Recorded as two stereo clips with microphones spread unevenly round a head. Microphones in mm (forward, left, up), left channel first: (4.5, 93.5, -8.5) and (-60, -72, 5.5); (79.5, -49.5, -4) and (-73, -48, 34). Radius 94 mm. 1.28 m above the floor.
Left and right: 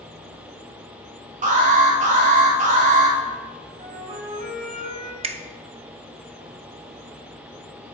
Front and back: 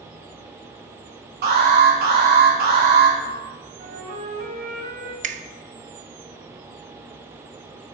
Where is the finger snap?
165° right, 0.5 m.